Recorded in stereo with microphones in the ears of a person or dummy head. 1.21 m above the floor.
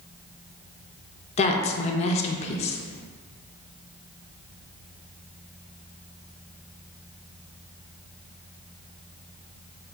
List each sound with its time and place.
1.4 s a woman speaking: 35° left (ahead or behind), 0.5 m